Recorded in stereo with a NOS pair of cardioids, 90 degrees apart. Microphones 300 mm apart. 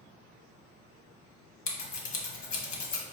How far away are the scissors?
About 1.3 m.